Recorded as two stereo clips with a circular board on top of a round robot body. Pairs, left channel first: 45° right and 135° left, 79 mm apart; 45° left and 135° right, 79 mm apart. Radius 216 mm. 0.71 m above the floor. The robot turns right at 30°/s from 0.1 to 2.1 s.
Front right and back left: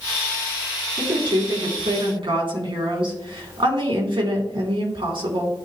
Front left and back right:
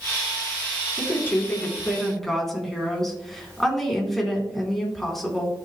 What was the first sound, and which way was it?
A woman speaking, 100° left.